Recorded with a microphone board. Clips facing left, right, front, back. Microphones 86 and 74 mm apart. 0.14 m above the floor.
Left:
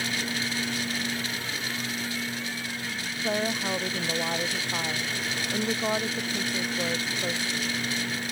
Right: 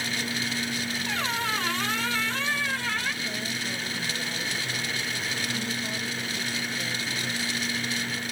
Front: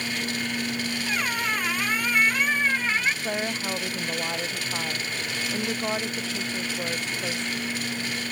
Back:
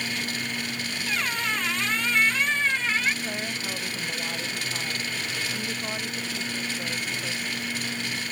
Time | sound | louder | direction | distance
1.1 | a squeak | right 4 dB, even | 80° right | ?
3.2 | a woman speaking | left 6 dB, front 4 dB | 65° left | ?